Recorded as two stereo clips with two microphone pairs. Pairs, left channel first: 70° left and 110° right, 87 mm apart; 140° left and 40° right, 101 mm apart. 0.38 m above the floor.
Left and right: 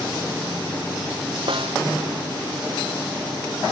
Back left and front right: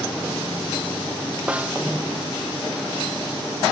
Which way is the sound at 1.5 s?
120° right.